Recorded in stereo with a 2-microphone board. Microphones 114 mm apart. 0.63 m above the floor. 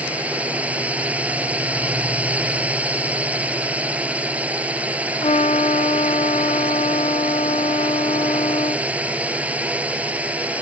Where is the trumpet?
65° left (ahead or behind).